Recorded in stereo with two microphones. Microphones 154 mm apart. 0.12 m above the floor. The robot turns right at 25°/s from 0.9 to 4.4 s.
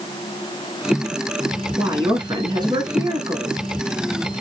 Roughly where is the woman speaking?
Right.